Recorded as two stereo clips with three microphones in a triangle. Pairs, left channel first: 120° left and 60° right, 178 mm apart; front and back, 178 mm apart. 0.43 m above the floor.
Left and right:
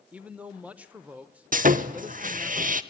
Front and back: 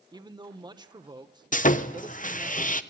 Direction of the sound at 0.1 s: 135° right.